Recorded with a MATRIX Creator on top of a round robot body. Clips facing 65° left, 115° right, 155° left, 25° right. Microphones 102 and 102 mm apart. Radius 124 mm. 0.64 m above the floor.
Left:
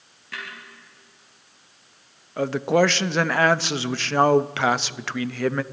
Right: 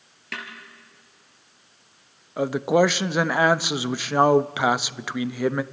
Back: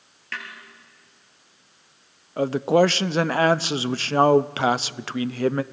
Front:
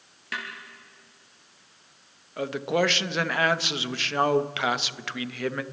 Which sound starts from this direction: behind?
A man speaking, at 2.4 s.